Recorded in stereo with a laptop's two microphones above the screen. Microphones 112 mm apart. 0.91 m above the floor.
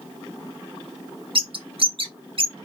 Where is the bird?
55° right (ahead or behind), 0.7 m.